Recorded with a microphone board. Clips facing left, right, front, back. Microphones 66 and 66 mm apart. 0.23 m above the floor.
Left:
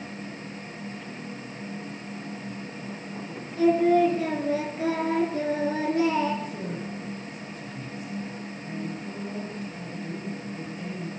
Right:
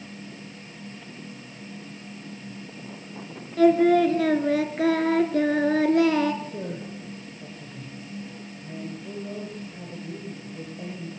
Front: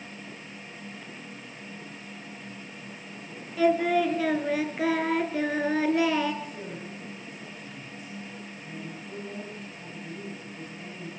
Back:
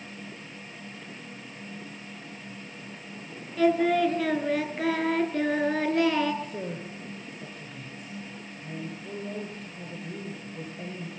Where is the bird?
I don't hear a bird.